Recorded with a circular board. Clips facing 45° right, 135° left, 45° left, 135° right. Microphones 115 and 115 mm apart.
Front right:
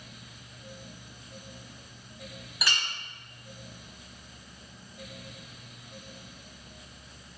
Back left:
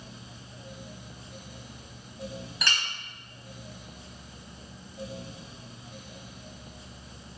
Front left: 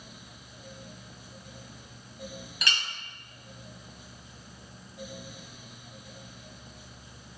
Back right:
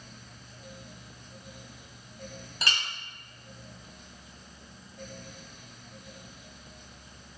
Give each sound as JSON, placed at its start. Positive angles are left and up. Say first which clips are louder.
{"t": 2.6, "sound": "a clink", "louder": "even, back right 1 dB", "azimuth_deg": -125, "distance_m": 0.8}